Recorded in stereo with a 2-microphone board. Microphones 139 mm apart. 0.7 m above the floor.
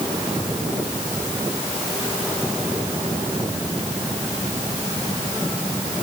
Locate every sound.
Only background noise.